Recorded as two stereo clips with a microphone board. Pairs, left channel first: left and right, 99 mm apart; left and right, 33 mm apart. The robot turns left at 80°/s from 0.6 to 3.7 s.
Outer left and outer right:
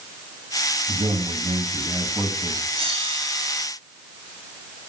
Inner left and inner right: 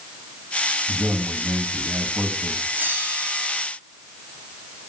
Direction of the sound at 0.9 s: 60° right.